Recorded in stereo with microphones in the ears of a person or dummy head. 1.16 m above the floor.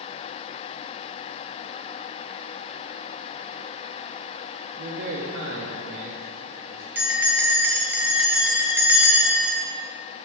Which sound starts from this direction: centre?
A bell, at 7.0 s.